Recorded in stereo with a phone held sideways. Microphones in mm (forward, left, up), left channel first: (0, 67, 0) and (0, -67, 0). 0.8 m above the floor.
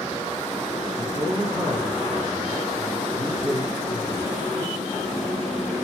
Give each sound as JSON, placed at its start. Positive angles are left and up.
{"t": 1.0, "sound": "a man speaking", "side_deg": -40, "distance_m": 9.5}